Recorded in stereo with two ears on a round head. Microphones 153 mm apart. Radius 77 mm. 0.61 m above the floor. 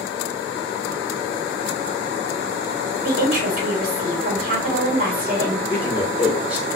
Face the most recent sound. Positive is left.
turn(degrees=-10)  # may be behind; listen again after turning